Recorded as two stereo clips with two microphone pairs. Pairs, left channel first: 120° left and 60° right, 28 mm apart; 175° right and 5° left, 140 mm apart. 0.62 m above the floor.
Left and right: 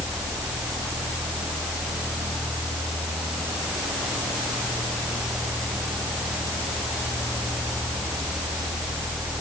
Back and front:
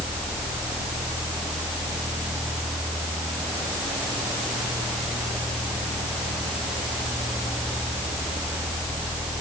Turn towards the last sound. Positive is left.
No sound to turn to.